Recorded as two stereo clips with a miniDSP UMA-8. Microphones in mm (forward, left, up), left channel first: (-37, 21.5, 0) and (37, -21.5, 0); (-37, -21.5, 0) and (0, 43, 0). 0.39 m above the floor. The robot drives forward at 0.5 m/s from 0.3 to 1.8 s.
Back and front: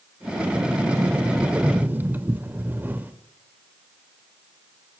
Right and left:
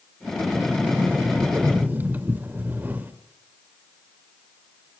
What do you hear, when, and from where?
0.6 s a sliding door: 10° left, 1.8 m; by 3.1 s 20° left, 1.4 m